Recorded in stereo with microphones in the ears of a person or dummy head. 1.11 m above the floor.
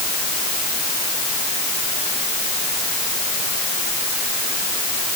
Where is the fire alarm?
I don't hear a fire alarm.